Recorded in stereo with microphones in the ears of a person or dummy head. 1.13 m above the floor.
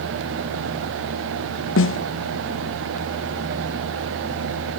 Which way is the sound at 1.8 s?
60° left (ahead or behind).